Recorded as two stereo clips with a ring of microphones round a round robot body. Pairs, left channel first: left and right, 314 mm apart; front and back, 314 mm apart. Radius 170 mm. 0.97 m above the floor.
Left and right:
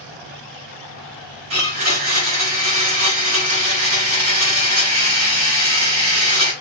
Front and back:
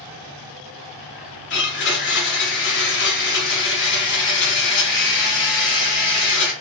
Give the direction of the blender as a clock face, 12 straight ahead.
2 o'clock.